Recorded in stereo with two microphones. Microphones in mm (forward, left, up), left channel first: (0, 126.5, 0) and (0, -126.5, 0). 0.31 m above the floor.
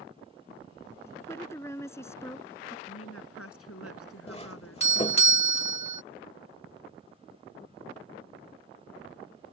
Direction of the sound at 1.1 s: 10° left (ahead or behind).